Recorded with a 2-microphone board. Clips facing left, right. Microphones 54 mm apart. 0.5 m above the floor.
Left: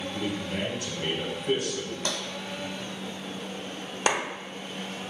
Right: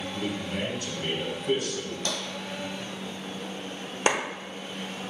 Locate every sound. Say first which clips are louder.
0.1 s a man speaking: even; 50° left (ahead or behind), 1.5 m
2.0 s tapping: even; 50° left (ahead or behind), 1.0 m
4.1 s a clap: right 1 dB; 20° right (ahead or behind), 0.6 m